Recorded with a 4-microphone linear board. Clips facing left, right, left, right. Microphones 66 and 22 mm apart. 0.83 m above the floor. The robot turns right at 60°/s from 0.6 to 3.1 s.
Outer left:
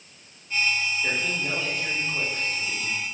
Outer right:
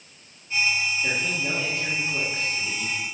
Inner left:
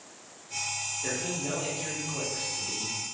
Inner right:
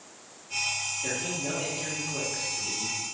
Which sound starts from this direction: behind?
A man speaking, at 1.0 s.